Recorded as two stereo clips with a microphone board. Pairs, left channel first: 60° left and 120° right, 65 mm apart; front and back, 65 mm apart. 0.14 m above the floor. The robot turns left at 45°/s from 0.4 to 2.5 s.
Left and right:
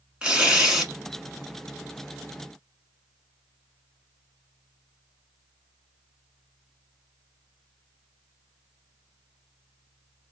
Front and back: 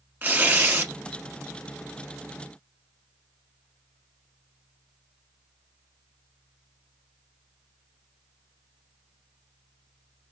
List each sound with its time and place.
0.2 s tearing paper: 175° right, 0.8 m; by 0.9 s 165° left, 0.8 m